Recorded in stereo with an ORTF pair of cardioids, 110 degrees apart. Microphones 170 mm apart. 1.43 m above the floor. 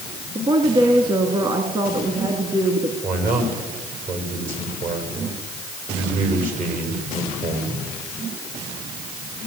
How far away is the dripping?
I don't hear dripping.